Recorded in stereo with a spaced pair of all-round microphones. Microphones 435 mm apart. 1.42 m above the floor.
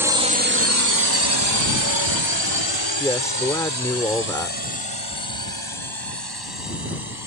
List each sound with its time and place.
0.0 s a drone: 5° right (ahead or behind); by 7.3 s 60° right (ahead or behind)
3.0 s a man speaking: 5° left (ahead or behind)